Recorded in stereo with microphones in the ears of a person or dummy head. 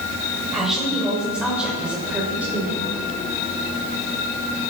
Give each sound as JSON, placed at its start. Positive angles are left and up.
{"t": 0.5, "sound": "a woman speaking", "side_deg": 0, "distance_m": 7.5}